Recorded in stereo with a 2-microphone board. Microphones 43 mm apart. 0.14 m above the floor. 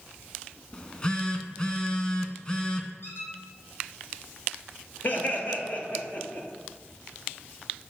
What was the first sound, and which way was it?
A phone buzzing, 25° left (ahead or behind).